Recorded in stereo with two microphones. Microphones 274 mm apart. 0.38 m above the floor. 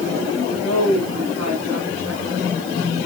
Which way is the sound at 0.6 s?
60° left (ahead or behind).